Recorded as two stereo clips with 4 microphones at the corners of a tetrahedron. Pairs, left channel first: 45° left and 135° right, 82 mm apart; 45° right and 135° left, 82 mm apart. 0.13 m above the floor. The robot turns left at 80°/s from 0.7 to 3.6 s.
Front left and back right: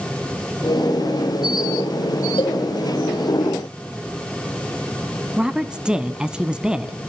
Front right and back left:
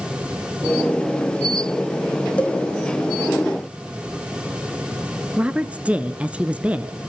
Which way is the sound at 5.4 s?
170° left.